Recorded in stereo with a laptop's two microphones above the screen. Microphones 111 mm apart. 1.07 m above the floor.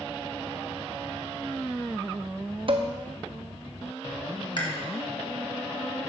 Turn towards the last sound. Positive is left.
turn(degrees=45)  # may be behind; listen again after turning